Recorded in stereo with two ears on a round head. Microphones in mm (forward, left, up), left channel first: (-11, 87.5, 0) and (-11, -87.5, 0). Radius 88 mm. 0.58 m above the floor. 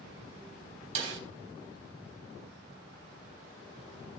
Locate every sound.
0.9 s a snare drum: 70° right (ahead or behind), 3.5 m